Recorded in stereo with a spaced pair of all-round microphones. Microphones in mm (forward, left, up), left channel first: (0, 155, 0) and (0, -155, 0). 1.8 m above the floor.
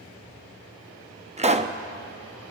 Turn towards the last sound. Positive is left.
turn(degrees=-20)  # may be behind; listen again after turning